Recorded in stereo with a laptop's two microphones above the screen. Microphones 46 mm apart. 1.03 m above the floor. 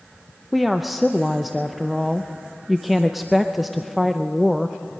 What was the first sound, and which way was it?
A woman speaking, 5° right (ahead or behind).